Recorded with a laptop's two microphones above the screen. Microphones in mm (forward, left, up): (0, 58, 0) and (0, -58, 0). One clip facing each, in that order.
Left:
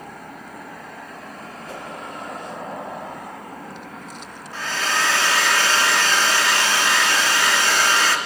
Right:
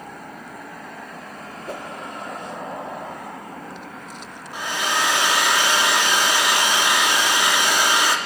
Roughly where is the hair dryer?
Centre.